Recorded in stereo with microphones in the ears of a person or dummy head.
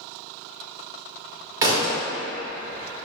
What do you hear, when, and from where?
1.6 s a thud: 20° right (ahead or behind), 1.1 m